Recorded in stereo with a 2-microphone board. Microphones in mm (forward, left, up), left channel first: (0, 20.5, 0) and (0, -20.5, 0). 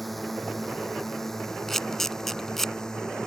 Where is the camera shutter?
5° left (ahead or behind).